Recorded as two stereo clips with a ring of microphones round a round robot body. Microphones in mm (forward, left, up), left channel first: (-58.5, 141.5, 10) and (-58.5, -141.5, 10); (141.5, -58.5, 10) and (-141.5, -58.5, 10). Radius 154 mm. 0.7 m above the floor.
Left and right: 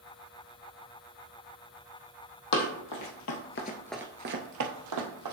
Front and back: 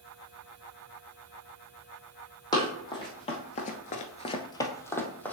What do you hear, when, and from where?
2.5 s running footsteps: 80° left, 1.9 m; by 5.3 s 85° right, 1.9 m